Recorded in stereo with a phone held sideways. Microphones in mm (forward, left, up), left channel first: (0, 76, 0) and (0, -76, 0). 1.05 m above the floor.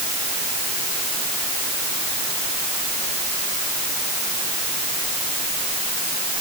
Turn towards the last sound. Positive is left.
No sound to turn to.